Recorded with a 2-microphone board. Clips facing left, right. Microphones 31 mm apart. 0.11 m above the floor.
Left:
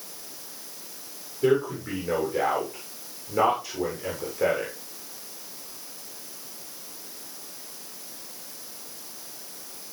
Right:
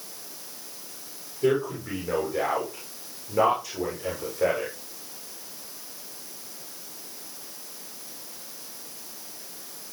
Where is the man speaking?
15° left (ahead or behind), 9 m.